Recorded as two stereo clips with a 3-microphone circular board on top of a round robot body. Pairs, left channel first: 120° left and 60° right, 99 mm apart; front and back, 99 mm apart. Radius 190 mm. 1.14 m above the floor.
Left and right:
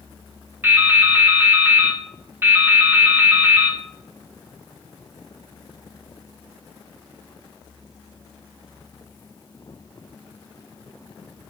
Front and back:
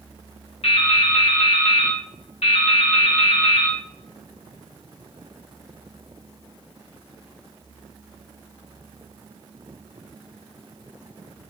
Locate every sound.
0.6 s dripping: 10° left, 1.9 m